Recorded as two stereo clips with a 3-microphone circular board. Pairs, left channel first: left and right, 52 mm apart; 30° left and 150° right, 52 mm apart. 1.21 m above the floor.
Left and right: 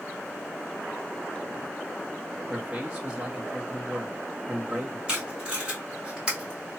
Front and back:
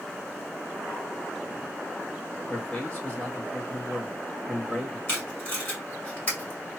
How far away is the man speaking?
About 1.2 m.